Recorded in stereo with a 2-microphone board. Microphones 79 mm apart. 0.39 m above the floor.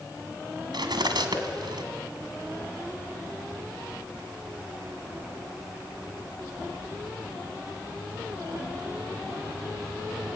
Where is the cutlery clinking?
70° right (ahead or behind), 2 m.